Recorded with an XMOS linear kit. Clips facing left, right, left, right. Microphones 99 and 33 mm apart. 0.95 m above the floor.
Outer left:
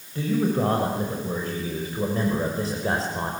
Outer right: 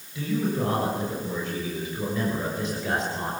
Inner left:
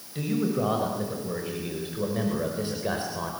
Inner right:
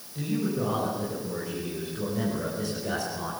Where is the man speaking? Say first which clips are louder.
Outer left 3 dB, inner left 2 dB; 45° left (ahead or behind), 6 m; by 3.3 s 35° left (ahead or behind), 5 m.